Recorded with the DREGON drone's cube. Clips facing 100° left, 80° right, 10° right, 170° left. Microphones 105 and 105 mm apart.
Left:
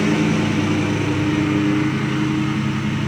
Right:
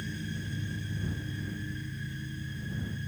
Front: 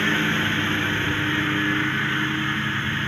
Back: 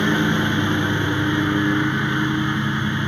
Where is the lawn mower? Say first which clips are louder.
Left 22 dB, back 4 dB; 95° left.